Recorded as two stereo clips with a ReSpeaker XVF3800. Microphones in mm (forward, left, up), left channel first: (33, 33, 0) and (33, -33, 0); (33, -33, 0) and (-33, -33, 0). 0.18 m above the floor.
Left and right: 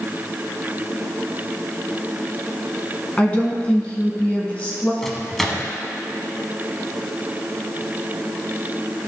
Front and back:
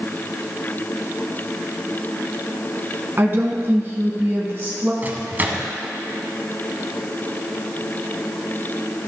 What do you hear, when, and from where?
3.2 s a woman speaking: 150° left, 1.4 m
5.0 s a microwave: 170° left, 0.9 m